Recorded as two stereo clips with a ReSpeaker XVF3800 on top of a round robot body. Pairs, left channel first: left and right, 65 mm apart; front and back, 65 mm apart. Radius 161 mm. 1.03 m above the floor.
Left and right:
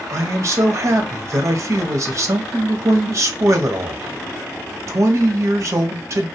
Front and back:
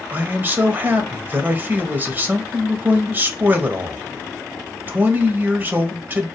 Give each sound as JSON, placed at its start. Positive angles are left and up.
{"t": 0.1, "sound": "a man speaking", "azimuth_deg": -120, "distance_m": 0.8}